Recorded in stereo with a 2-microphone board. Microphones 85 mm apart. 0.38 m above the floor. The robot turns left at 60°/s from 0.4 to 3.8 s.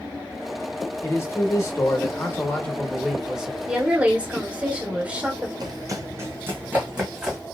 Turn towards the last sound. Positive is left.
turn(degrees=-5)  # may be behind; listen again after turning